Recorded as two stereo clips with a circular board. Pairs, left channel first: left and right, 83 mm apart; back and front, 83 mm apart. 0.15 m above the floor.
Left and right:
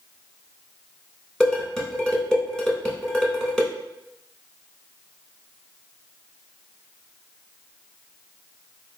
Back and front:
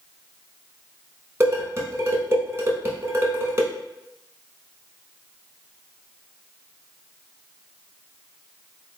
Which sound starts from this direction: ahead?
Dishes clattering, at 1.4 s.